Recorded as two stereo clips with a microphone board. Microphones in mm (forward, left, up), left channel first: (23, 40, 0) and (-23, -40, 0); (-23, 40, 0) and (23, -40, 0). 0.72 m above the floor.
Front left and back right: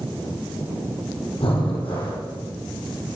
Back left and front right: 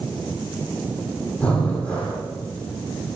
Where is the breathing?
45° left, 9.5 m.